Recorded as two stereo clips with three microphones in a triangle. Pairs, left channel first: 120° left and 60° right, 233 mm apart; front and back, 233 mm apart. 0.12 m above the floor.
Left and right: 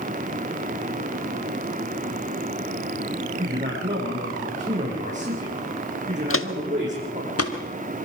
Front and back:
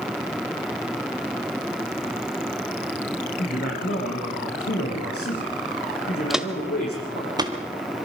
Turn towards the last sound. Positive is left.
turn(degrees=110)